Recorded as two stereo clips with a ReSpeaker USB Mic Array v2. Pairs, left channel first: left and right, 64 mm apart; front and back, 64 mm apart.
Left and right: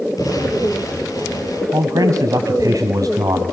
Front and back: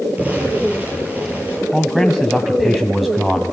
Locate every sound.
0.2 s an explosion: 115° left, 9 m
1.7 s a man speaking: 95° right, 1.9 m